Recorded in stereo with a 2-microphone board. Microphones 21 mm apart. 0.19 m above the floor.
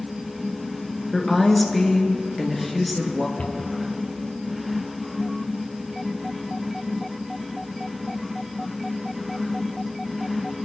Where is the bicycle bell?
I don't hear a bicycle bell.